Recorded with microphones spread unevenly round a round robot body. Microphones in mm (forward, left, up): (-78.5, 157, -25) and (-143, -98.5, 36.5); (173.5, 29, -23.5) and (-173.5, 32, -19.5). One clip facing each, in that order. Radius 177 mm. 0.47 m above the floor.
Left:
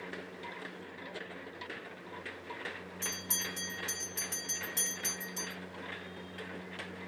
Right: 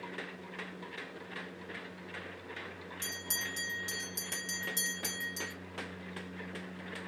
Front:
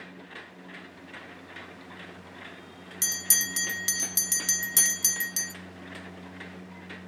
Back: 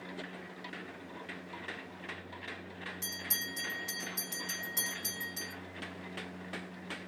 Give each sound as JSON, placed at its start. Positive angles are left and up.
{"t": 3.0, "sound": "a bell", "azimuth_deg": -35, "distance_m": 0.5}